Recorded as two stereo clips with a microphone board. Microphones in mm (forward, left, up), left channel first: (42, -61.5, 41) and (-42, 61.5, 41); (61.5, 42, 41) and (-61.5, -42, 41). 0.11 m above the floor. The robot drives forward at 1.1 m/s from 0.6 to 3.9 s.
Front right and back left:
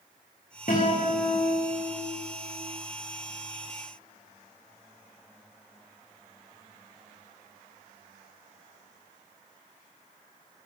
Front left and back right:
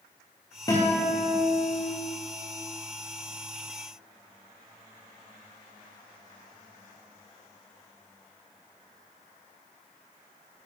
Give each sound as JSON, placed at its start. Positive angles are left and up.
{"t": 0.7, "sound": "a guitar", "azimuth_deg": -30, "distance_m": 4.0}